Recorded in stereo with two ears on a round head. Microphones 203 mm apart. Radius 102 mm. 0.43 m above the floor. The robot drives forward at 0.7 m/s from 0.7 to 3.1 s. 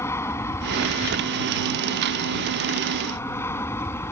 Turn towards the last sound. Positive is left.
turn(degrees=10)  # may be behind; listen again after turning